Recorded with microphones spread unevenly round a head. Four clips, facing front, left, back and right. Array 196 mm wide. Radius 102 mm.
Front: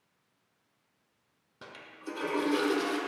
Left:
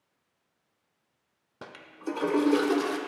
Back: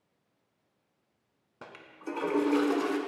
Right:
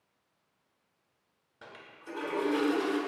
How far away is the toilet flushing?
About 0.6 m.